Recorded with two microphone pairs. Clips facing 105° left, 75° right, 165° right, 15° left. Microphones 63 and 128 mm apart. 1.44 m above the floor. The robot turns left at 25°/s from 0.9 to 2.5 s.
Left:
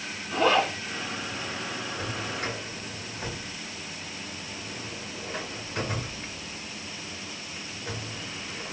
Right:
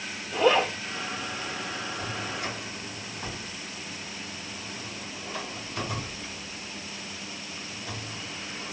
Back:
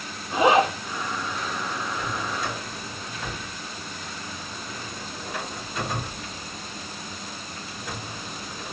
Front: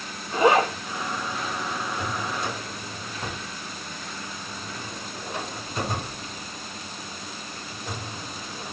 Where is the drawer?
80° left, 4 m; by 8.7 s 70° left, 4 m.